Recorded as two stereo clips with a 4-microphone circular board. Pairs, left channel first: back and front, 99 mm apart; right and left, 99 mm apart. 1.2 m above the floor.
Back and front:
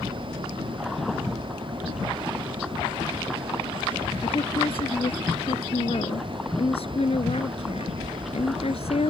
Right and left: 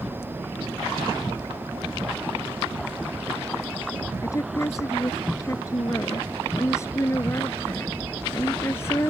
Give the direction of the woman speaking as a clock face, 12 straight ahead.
5 o'clock.